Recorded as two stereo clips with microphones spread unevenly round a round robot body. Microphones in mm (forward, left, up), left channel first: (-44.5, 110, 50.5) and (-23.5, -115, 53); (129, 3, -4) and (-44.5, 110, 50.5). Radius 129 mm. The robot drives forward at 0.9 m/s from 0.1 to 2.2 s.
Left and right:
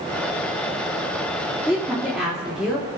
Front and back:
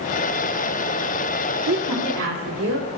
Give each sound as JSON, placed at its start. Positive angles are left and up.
{"t": 1.7, "sound": "a woman speaking", "azimuth_deg": -170, "distance_m": 1.7}